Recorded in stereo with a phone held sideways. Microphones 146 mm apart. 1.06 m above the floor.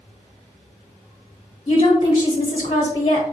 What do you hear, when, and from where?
1.7 s a woman speaking: 35° left (ahead or behind), 0.8 m